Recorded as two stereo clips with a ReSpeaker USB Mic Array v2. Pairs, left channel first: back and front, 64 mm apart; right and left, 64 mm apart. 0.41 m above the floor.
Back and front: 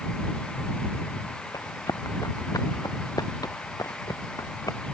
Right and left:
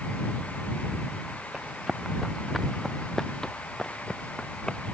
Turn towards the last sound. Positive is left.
turn(degrees=-165)